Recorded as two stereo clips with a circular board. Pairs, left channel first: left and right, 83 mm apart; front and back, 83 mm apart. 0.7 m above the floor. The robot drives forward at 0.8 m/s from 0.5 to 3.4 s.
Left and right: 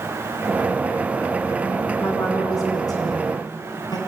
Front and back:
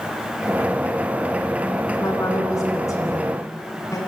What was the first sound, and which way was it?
A woman speaking, 45° left.